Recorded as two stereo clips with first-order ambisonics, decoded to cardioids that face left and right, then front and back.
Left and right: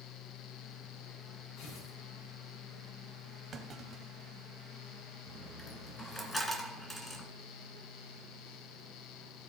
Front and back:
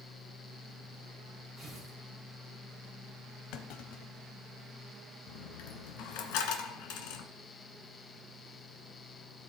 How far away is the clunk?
About 0.9 m.